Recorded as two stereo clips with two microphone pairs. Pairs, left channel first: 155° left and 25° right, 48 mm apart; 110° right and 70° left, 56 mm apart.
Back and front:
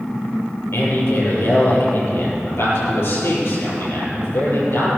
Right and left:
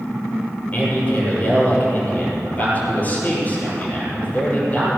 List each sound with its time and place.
0.7 s a man speaking: 170° right, 7 m